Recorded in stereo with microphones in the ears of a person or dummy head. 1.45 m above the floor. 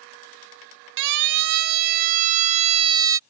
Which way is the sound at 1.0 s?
65° right (ahead or behind).